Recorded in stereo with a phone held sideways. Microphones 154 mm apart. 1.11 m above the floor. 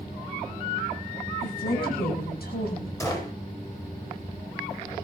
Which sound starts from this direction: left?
A woman speaking, at 1.4 s.